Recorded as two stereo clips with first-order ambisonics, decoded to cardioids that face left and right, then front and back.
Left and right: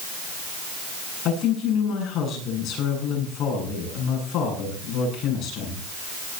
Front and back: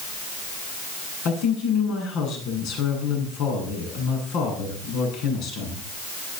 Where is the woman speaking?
40° left, 9.5 m.